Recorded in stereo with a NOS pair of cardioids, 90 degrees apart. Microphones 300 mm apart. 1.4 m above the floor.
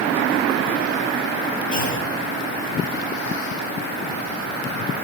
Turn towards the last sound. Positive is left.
turn(degrees=55)